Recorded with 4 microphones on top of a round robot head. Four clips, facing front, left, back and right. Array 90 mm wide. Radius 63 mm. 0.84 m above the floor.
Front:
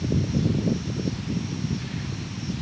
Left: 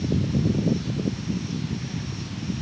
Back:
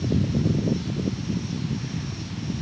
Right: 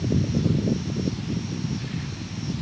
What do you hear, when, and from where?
Only background noise.